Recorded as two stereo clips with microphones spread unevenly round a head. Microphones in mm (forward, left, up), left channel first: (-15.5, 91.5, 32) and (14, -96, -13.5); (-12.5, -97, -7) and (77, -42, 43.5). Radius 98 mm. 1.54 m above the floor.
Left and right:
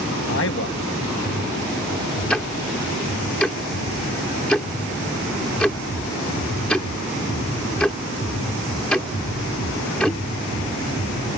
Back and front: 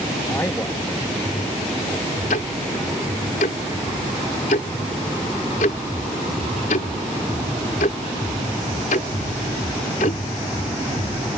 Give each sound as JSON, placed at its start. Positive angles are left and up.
{"t": 0.3, "sound": "a man speaking", "azimuth_deg": 125}
{"t": 2.3, "sound": "ticking", "azimuth_deg": 165}